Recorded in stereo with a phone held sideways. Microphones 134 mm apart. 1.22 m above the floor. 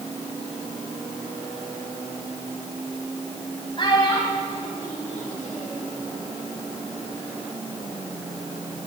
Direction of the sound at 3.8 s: 40° left (ahead or behind).